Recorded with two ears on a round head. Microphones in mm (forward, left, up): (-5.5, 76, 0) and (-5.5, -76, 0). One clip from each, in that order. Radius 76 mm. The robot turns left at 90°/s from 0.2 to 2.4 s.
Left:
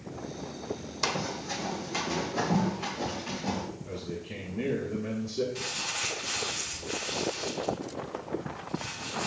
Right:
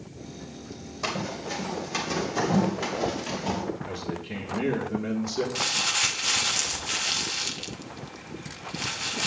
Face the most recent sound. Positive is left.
turn(degrees=-60)  # may be behind; listen again after turning